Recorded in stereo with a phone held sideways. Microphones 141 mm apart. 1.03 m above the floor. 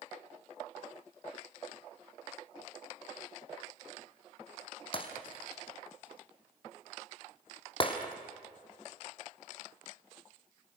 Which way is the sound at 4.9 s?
40° left (ahead or behind).